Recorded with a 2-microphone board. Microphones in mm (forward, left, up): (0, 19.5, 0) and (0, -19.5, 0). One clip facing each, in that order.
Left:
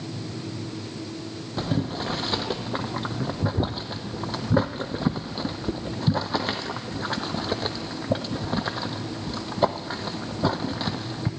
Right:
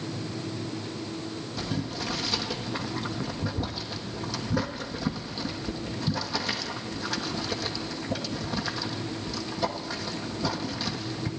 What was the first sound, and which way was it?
Boiling, 40° left (ahead or behind).